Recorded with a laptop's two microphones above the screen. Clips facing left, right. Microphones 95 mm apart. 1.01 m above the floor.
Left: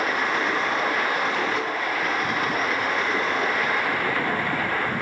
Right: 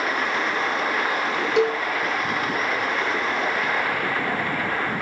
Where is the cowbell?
75° right (ahead or behind), 0.8 m.